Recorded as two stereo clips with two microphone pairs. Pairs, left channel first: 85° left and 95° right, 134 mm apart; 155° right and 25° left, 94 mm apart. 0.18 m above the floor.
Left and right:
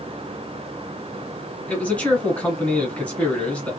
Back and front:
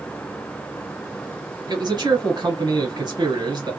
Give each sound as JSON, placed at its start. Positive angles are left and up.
{"t": 1.7, "sound": "a man speaking", "azimuth_deg": 10, "distance_m": 1.5}